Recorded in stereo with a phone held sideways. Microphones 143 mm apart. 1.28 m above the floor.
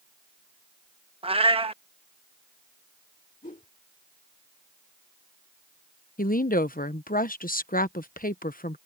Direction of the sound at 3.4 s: 60° left (ahead or behind).